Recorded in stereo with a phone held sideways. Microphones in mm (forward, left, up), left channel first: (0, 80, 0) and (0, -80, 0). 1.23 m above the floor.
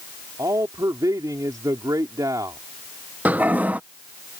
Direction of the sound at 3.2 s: 10° right (ahead or behind).